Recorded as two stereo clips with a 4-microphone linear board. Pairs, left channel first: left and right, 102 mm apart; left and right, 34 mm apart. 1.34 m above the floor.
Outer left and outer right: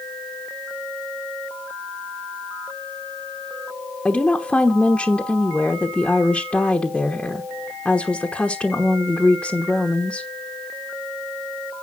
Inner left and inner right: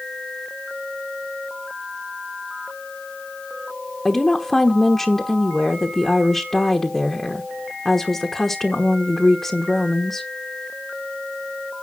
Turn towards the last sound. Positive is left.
turn(degrees=10)  # may be behind; listen again after turning